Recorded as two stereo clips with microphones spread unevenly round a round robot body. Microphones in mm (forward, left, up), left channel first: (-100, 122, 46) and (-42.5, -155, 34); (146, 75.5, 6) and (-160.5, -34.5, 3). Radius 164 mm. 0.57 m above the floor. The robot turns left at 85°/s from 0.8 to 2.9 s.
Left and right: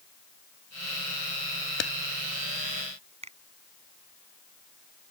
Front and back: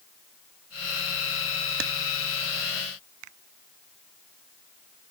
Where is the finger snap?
145° right.